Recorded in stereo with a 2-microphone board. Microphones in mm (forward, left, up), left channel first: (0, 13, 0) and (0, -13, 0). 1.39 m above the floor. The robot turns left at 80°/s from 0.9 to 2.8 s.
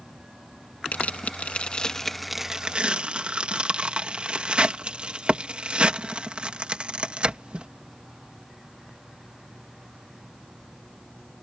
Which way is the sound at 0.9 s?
70° left (ahead or behind).